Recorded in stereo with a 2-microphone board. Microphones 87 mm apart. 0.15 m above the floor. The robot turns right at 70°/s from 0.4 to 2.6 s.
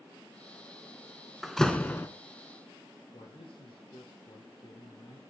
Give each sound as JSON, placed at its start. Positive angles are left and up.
{"t": 1.4, "sound": "a door slam", "azimuth_deg": -5, "distance_m": 0.9}
{"t": 3.1, "sound": "a man speaking", "side_deg": 70, "distance_m": 4.0}